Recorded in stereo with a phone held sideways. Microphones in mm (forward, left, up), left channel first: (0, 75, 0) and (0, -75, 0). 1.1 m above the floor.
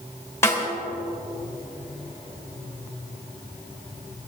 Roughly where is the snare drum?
Centre.